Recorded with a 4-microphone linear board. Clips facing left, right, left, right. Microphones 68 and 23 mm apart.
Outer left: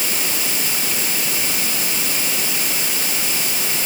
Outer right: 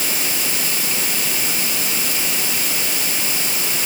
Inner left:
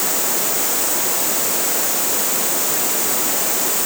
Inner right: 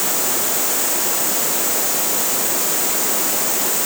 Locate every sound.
Only background noise.